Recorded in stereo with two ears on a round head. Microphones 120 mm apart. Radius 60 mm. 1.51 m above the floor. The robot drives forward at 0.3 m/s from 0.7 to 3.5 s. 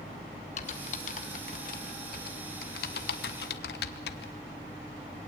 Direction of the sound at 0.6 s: 50° left (ahead or behind).